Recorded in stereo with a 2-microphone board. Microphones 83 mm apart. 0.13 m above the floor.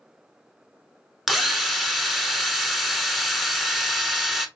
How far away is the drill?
About 0.5 m.